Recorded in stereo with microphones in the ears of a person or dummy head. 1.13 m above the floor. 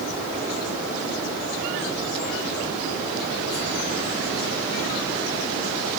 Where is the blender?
No blender in this recording.